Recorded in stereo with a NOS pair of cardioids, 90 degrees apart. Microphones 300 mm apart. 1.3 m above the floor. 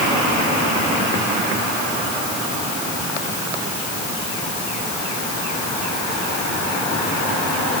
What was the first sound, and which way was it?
Only background noise.